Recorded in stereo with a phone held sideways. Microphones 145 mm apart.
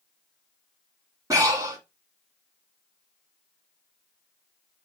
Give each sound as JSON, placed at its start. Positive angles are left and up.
{"t": 1.3, "sound": "breathing", "side_deg": -25, "distance_m": 1.5}